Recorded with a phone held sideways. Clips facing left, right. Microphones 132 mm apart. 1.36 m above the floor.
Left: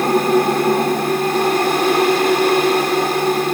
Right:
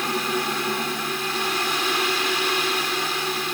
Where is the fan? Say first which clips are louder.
Left 12 dB; 55° left (ahead or behind).